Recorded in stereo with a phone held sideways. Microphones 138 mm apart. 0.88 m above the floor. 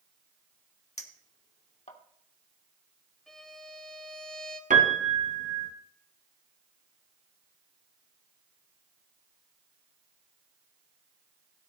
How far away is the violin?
About 1.2 m.